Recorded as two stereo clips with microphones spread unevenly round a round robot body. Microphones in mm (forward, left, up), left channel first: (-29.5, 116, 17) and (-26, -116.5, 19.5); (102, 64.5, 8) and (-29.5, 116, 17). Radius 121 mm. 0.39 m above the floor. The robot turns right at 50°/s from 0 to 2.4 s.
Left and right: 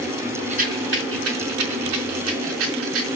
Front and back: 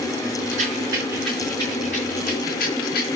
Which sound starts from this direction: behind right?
A rattle, at 0.5 s.